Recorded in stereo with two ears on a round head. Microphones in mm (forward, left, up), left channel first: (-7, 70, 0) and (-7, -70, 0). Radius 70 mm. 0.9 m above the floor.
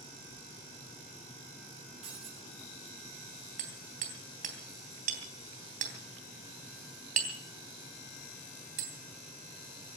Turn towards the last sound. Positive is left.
turn(degrees=-55)  # may be behind; listen again after turning